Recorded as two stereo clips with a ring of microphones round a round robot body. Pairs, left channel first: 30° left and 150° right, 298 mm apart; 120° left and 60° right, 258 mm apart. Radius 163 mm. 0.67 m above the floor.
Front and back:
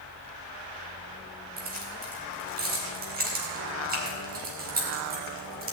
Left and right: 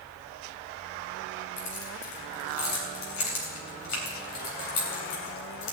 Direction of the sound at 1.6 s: 150° left.